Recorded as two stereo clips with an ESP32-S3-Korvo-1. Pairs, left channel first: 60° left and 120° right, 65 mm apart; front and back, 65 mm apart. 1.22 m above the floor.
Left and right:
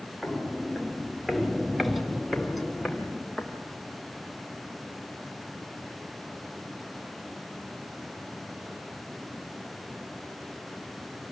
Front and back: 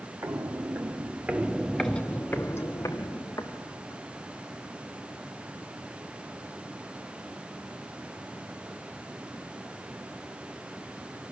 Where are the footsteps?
155° left, 2 m; by 4.0 s 30° right, 3 m.